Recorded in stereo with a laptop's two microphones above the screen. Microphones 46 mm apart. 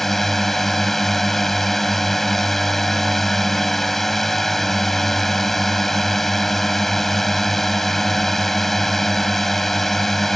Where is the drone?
5° left (ahead or behind).